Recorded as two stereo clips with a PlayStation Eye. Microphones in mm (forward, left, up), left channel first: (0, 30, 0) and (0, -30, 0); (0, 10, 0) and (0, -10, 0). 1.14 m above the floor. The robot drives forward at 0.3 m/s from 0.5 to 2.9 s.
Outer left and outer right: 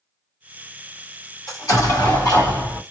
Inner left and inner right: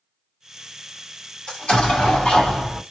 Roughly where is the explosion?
Left.